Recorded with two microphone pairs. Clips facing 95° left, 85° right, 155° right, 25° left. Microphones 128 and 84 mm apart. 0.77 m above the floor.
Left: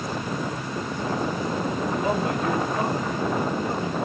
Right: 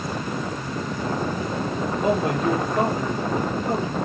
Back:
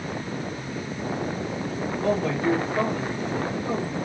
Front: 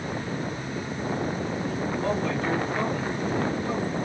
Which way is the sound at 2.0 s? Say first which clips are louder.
Right 5 dB, back 5 dB; 85° right.